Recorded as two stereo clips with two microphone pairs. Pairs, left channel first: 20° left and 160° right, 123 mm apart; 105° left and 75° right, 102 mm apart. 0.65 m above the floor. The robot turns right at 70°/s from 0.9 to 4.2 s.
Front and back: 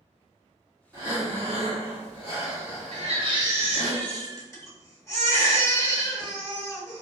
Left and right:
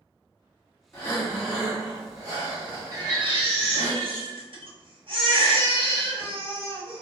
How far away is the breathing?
About 1.7 m.